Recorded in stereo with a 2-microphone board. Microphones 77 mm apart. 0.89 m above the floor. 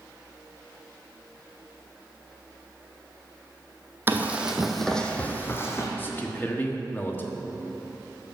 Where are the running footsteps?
25° right (ahead or behind), 1.5 m; by 5.9 s 35° left (ahead or behind), 1.8 m.